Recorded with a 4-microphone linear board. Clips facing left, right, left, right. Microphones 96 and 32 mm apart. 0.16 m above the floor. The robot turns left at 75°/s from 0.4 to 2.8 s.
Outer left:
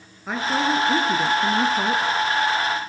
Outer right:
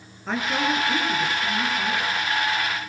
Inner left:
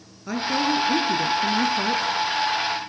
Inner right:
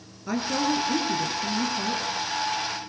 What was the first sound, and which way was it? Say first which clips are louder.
A woman speaking: outer left 2 dB, inner left 2 dB; 175° left.